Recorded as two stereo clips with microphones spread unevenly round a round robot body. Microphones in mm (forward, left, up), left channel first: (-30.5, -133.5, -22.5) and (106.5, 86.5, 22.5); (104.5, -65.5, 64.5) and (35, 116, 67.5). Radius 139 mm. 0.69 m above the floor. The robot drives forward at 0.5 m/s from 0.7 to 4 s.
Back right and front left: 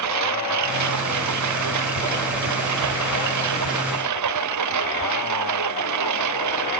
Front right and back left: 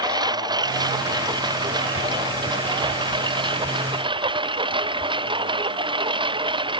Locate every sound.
0.0 s a lawn mower: 40° left; by 6.8 s 45° left